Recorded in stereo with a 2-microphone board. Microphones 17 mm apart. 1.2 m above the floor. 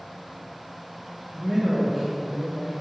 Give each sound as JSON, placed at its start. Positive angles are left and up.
{"t": 1.3, "sound": "a man speaking", "side_deg": 15, "distance_m": 1.0}